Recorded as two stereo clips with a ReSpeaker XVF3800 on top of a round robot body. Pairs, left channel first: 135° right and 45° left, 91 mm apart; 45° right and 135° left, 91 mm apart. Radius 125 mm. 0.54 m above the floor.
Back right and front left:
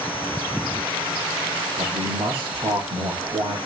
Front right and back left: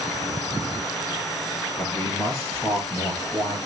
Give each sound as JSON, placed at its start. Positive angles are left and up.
{"t": 1.8, "sound": "a man speaking", "azimuth_deg": 35, "distance_m": 8.0}